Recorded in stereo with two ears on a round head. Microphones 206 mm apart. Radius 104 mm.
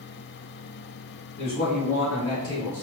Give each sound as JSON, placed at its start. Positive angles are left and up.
{"t": 1.4, "sound": "a man speaking", "side_deg": 45, "distance_m": 1.5}